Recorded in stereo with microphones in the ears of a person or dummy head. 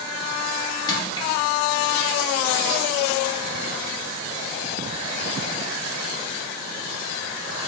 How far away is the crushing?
About 1.0 m.